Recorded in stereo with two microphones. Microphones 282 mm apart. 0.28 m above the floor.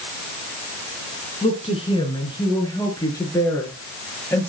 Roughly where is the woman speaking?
Left.